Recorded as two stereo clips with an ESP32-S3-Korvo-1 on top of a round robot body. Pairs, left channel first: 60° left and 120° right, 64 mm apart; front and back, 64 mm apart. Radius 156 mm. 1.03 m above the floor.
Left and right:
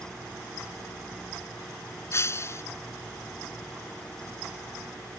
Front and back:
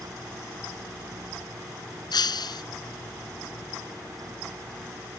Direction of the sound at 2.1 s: 10° left.